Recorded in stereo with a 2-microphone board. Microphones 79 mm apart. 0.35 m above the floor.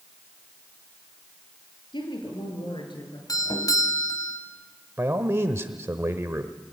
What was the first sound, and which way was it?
A woman speaking, 80° left.